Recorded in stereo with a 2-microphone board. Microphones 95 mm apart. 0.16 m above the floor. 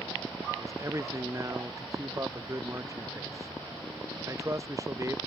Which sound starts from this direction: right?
A man speaking, at 0.6 s.